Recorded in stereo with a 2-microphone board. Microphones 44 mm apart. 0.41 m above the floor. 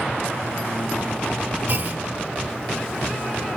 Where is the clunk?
45° right (ahead or behind), 0.7 m.